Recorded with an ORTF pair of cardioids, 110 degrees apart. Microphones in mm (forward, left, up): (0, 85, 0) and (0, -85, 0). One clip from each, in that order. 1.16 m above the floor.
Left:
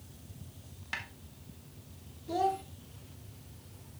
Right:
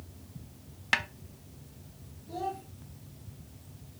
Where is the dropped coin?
No dropped coin in this recording.